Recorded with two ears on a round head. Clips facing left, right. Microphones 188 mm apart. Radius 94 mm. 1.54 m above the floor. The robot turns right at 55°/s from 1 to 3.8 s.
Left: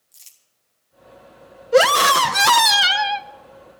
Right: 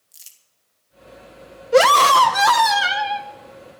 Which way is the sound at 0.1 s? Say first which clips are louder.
Right 1 dB; 5° right (ahead or behind).